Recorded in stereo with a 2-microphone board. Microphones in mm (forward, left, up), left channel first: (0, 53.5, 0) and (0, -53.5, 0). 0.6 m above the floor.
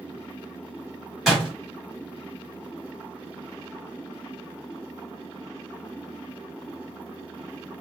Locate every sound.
1.3 s a door slam: centre (ahead or behind), 1.4 m